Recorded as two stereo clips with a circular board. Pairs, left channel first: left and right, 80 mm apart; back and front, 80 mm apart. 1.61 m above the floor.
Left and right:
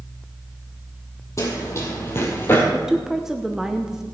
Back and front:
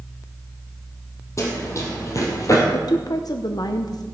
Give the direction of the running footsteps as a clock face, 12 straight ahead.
7 o'clock.